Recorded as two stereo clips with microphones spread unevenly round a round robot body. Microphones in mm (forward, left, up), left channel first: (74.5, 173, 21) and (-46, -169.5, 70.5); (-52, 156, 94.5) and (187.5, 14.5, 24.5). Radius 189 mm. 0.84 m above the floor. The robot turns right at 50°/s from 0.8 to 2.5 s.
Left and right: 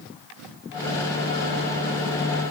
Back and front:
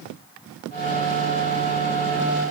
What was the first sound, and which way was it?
Only background noise.